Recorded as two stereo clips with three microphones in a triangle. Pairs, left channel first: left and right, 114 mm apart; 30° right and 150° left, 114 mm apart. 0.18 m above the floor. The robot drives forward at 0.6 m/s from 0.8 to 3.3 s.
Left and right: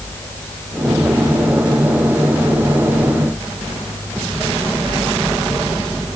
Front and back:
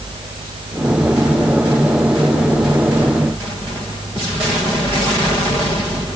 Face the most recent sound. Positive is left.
No sound to turn to.